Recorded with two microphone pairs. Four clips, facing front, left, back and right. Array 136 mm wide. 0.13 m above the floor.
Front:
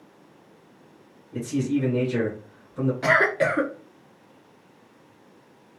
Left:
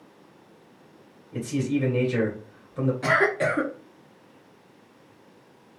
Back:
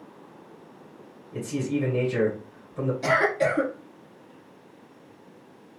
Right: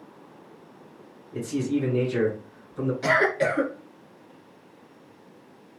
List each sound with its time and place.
1.3 s a man speaking: 80° left, 2 m
3.0 s a cough: 15° left, 1.4 m